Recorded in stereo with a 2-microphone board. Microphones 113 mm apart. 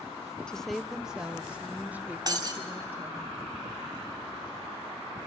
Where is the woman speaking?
5° left (ahead or behind), 0.7 m; by 3.3 s 20° right (ahead or behind), 2.5 m.